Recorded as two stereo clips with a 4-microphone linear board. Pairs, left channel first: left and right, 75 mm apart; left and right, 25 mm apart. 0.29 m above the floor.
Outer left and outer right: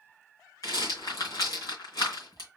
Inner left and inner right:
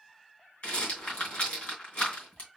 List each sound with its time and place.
0.6 s a rattle: 50° left (ahead or behind), 2.5 m